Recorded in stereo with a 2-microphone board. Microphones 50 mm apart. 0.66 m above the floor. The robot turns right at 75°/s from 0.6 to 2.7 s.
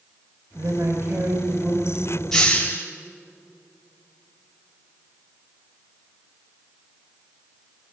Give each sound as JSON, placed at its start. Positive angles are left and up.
{"t": 0.6, "sound": "a woman speaking", "azimuth_deg": -100, "distance_m": 3.5}
{"t": 2.3, "sound": "a hiss", "side_deg": 10, "distance_m": 2.5}